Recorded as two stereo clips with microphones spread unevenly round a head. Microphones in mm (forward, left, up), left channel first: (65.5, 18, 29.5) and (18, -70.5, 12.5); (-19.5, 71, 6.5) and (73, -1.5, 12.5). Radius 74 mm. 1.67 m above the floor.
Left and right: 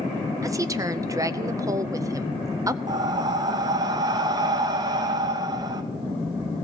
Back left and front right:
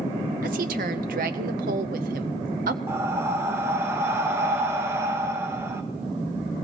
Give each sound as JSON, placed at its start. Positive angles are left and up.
{"t": 0.4, "sound": "a woman speaking", "azimuth_deg": -55, "distance_m": 0.7}
{"t": 2.9, "sound": "breathing", "azimuth_deg": -90, "distance_m": 0.6}